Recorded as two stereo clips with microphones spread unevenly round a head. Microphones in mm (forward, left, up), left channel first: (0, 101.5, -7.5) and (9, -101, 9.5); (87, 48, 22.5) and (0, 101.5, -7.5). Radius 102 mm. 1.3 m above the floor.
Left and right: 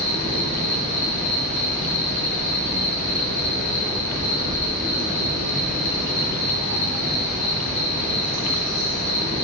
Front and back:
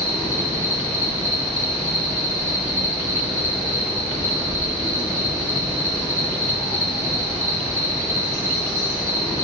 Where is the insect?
175° left, 1.1 m.